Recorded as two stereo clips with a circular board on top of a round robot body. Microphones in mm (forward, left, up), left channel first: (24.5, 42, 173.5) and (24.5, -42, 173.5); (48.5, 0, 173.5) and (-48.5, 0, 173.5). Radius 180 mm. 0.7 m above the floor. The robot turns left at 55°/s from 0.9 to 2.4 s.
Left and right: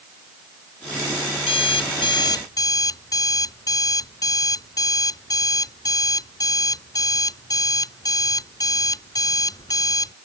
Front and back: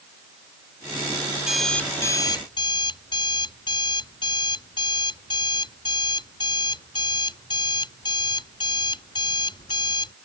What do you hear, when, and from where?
1.4 s an alarm clock: 100° left; by 10.1 s 45° left